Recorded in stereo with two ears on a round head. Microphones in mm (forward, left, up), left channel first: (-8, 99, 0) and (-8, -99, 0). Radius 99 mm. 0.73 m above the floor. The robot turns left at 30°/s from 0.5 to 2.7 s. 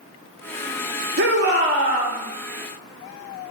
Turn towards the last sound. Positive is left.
turn(degrees=-155)